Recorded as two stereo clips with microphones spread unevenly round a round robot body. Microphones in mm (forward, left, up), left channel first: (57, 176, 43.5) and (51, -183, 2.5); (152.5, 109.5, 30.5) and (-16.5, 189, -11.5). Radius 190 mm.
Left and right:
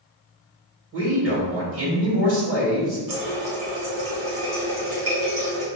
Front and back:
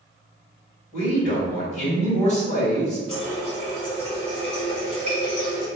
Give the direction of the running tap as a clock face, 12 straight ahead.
4 o'clock.